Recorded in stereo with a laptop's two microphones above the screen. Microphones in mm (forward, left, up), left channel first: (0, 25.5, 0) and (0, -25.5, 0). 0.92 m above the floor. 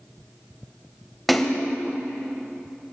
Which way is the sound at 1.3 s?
5° left (ahead or behind).